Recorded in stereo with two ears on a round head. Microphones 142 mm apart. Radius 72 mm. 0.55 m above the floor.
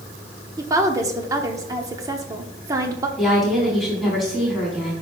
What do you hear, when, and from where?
0.6 s a woman speaking: 20° right (ahead or behind), 1.0 m
3.2 s a woman speaking: centre (ahead or behind), 4.5 m